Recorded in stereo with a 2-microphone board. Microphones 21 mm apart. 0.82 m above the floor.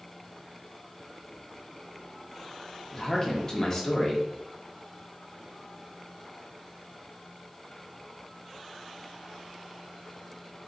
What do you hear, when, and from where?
2.9 s a man speaking: 25° left (ahead or behind), 0.9 m